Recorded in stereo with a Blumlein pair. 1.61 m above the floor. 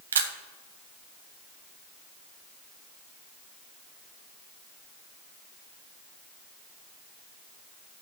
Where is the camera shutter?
65° right, 0.9 m.